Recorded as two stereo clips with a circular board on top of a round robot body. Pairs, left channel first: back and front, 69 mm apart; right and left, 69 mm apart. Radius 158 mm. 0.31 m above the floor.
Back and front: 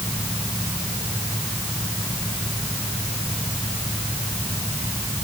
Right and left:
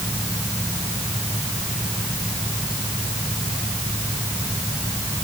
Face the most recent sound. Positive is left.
No sound to turn to.